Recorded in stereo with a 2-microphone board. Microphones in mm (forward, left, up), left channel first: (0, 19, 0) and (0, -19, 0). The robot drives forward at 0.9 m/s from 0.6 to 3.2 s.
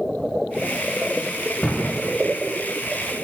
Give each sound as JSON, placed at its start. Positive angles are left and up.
{"t": 1.6, "sound": "a thud", "side_deg": 35, "distance_m": 3.0}